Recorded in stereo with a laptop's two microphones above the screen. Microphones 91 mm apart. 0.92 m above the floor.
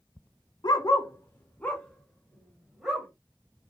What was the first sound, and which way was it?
A dog barking, 50° left (ahead or behind).